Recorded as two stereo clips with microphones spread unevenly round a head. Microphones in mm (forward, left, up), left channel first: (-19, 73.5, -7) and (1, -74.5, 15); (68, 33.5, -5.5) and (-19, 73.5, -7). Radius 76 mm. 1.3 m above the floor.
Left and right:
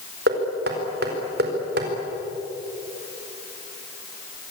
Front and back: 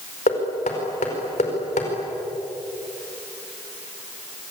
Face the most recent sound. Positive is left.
turn(degrees=-55)